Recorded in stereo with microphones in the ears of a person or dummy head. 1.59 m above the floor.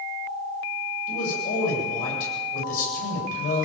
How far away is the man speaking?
About 9 m.